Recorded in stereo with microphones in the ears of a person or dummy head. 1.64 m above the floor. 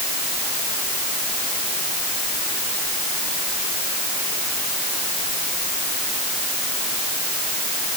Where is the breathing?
I don't hear breathing.